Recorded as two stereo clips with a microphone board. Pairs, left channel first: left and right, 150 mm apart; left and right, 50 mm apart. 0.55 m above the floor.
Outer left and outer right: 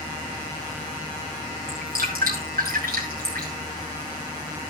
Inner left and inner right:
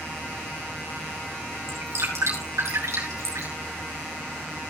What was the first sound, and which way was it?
Dripping, 80° right.